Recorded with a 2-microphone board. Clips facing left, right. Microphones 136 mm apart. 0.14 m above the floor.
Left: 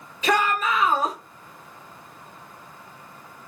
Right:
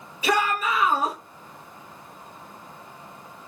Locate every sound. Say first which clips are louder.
0.2 s a shout: left 1 dB; 10° right (ahead or behind), 2 m